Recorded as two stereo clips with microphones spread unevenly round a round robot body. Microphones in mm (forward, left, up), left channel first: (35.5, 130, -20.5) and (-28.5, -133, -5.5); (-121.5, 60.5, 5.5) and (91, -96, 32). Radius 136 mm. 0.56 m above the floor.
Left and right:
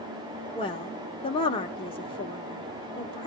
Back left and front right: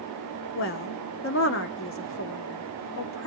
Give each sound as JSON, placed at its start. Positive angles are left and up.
{"t": 0.6, "sound": "a woman speaking", "azimuth_deg": 140, "distance_m": 1.3}